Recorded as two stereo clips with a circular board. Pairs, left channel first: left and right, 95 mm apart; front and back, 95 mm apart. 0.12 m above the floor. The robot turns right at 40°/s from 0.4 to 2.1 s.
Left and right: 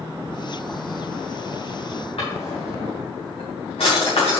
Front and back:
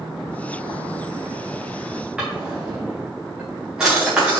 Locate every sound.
2.2 s a drawer: 100° left, 4 m